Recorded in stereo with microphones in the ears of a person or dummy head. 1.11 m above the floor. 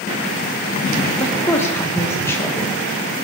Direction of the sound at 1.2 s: 10° left (ahead or behind).